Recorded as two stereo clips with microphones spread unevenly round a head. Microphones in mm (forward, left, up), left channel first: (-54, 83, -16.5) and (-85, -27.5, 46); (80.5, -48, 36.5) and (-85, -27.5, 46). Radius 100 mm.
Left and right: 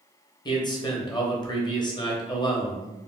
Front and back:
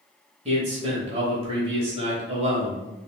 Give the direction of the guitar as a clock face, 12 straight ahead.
I don't hear a guitar.